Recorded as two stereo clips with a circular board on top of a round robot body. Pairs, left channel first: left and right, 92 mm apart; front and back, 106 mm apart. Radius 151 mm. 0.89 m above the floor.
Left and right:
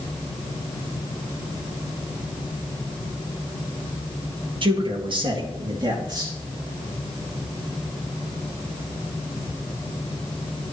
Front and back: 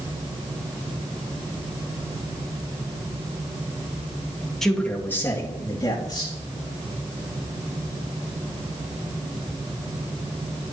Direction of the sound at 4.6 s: 85° right.